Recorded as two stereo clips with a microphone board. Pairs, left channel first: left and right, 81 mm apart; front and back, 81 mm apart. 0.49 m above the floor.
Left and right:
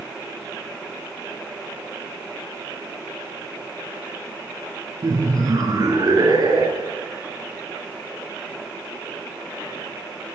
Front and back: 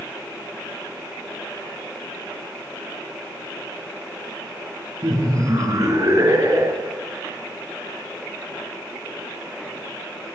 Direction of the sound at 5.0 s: 135° right.